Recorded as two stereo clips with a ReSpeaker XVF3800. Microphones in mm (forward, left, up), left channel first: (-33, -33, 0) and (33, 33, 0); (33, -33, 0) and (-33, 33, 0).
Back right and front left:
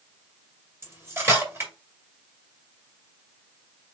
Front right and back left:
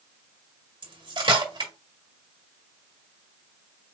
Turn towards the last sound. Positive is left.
turn(degrees=110)